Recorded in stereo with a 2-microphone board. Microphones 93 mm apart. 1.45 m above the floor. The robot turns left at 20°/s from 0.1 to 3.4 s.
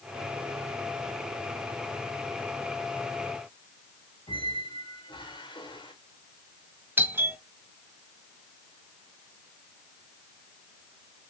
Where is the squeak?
60° left (ahead or behind), 1.8 m.